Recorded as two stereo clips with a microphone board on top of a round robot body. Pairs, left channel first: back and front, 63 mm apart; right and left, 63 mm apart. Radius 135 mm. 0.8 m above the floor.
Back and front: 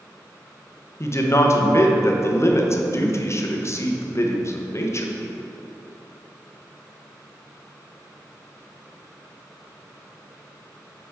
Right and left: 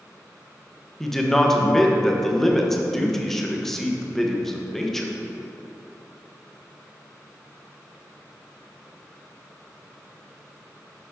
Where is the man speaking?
175° right, 1.1 m.